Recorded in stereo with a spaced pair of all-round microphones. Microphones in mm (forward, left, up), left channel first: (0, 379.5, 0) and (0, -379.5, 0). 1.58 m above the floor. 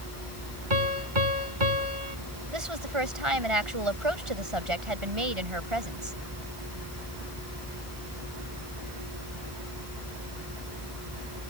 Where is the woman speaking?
40° right (ahead or behind).